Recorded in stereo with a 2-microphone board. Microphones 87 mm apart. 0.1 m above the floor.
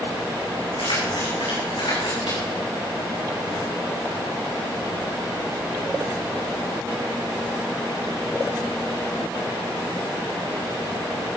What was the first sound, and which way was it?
Keys jangling, 70° left (ahead or behind).